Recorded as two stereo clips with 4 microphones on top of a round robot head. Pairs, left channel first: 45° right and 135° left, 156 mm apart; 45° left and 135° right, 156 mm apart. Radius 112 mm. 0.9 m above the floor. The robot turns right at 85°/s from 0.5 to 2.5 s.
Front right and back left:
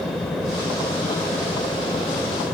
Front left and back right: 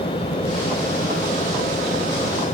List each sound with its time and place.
Only background noise.